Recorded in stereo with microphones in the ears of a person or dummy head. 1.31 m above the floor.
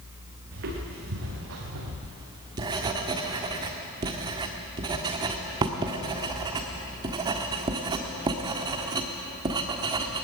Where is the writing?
25° right (ahead or behind), 1.5 m.